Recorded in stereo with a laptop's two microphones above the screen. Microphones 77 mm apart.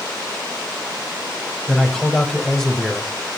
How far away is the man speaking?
About 4.5 m.